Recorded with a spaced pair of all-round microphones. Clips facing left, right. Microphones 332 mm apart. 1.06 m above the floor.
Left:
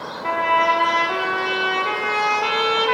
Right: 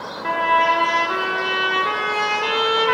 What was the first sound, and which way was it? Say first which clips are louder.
A trumpet: even; 20° right (ahead or behind).